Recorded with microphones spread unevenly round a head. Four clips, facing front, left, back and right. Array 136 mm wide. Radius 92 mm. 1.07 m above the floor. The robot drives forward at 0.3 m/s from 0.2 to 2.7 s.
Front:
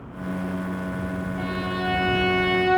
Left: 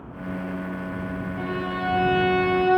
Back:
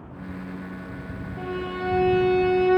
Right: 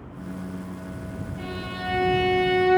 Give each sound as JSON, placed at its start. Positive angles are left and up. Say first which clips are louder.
{"t": 1.4, "sound": "a violin", "louder": "left 6 dB, back 1 dB", "azimuth_deg": 150, "distance_m": 1.3}